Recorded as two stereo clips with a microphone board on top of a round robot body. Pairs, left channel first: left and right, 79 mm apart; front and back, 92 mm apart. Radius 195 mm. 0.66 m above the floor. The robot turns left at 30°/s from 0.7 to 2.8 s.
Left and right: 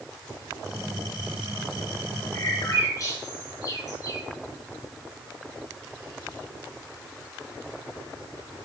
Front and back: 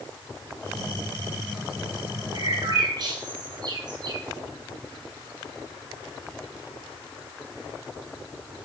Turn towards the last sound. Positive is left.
turn(degrees=145)